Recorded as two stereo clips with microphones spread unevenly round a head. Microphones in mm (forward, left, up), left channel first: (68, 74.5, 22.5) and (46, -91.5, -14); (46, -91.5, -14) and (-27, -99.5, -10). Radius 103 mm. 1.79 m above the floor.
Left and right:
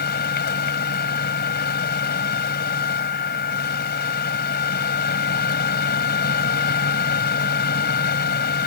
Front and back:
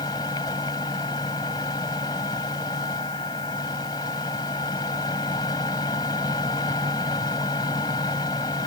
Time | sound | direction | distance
0.0 | a machine running | 65° left | ?